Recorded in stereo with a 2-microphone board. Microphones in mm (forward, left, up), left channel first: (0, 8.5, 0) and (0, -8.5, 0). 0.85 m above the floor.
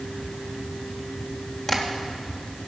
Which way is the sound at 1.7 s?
35° left (ahead or behind).